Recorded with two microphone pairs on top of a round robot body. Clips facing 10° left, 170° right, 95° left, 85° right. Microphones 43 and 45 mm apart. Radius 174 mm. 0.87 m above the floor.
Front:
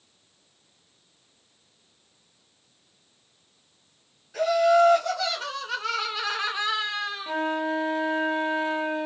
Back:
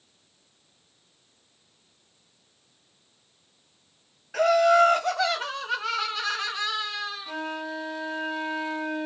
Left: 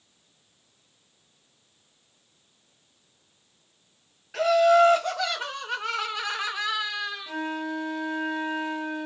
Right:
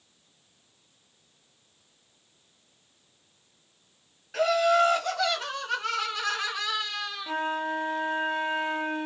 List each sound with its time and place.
4.3 s laughter: 175° left, 1.2 m; by 7.3 s 25° left, 1.2 m
7.3 s a flute: 40° right, 0.8 m